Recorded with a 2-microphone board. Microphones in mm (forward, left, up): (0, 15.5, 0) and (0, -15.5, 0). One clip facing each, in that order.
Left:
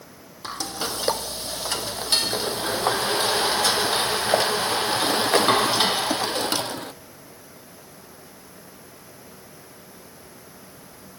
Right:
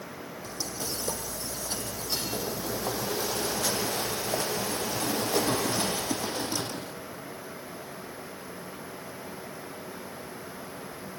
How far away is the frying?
About 0.9 m.